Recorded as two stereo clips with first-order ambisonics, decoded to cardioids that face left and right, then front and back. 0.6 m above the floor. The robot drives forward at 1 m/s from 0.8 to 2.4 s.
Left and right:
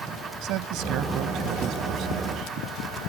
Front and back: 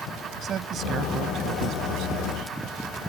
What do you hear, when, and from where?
0.4 s a man speaking: 125° right; by 2.5 s 140° right